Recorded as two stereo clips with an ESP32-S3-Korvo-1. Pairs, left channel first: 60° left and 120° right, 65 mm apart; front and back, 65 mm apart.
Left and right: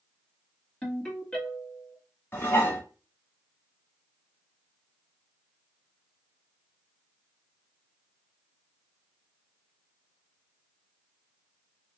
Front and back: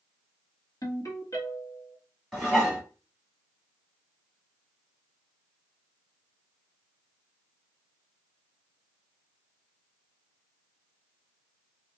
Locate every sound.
0.8 s a ringtone: 10° right, 1.6 m
2.3 s dishes clattering: 85° left, 1.1 m